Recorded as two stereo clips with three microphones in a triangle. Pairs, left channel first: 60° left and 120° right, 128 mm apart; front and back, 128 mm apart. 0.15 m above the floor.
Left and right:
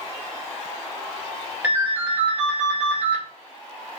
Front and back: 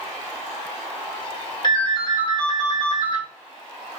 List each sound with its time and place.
1.6 s a ringtone: 50° right, 1.3 m